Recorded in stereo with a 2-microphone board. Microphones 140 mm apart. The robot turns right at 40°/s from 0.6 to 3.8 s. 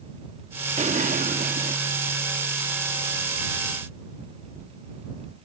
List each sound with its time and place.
0.8 s an explosion: 125° right; by 1.8 s 85° right